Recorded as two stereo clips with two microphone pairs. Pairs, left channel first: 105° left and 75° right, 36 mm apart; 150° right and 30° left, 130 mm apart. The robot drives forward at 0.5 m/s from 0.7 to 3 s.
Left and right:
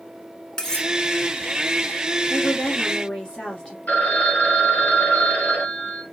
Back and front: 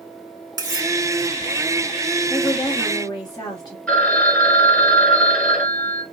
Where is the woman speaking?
165° left, 1.9 m; by 3.8 s 170° left, 2 m.